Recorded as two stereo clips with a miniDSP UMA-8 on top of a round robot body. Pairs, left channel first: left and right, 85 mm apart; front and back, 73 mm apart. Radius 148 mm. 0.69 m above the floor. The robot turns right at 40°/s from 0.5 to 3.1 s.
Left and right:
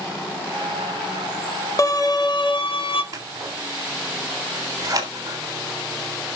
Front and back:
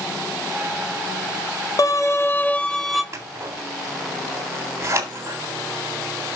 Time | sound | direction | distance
1.8 | a violin | 40° left | 1.3 m
3.1 | scissors | 135° right | 3.5 m